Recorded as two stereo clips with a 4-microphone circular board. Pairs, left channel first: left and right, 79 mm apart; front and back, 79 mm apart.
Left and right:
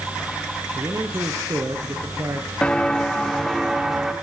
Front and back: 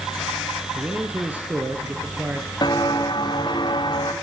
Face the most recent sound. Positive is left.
turn(degrees=-10)